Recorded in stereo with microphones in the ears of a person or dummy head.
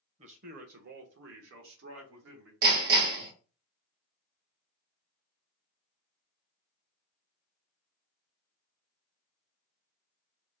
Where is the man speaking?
40° right (ahead or behind), 0.9 m; by 2.5 s 80° right, 1.7 m.